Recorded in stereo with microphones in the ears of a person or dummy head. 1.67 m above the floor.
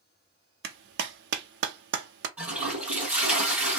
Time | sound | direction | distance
0.6 | a clap | 65° right (ahead or behind) | 0.6 m
2.4 | a toilet flushing | 10° right (ahead or behind) | 1.5 m